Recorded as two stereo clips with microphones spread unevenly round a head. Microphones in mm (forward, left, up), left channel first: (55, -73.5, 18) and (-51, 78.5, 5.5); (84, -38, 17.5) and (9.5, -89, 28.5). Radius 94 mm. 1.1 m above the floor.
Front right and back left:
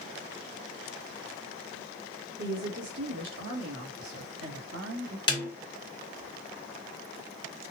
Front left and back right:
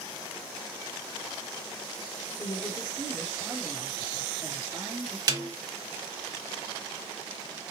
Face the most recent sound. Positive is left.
turn(degrees=-115)